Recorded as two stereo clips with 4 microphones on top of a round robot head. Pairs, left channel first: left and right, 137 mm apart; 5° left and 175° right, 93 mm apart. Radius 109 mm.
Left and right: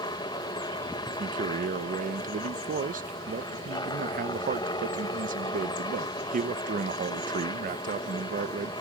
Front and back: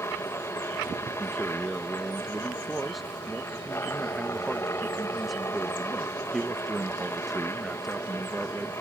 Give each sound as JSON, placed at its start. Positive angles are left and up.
{"t": 0.0, "sound": "a helicopter", "azimuth_deg": 50}
{"t": 1.2, "sound": "a man speaking", "azimuth_deg": -85}